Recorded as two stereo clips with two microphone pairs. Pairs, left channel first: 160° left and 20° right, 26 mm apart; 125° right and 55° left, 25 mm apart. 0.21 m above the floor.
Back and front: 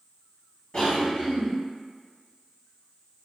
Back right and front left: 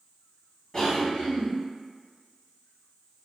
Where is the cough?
170° left, 2.0 m.